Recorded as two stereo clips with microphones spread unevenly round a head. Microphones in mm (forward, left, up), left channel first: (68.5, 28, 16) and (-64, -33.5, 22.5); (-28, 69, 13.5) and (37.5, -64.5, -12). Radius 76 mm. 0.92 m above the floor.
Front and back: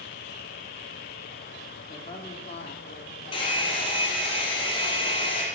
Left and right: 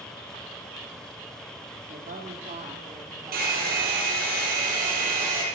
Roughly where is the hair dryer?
Ahead right.